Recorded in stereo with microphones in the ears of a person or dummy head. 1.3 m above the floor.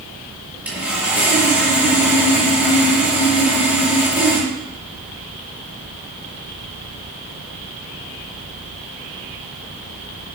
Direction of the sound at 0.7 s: 5° right (ahead or behind).